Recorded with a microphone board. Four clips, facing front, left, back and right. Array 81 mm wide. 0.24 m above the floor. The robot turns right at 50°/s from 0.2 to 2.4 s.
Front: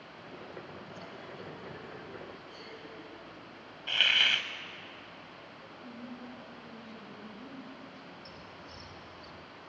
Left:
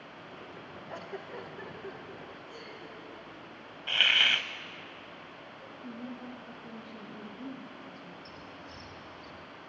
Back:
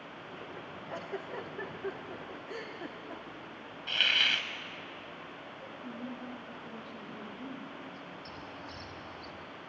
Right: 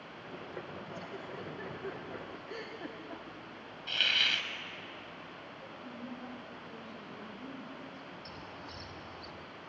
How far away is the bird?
About 5.5 m.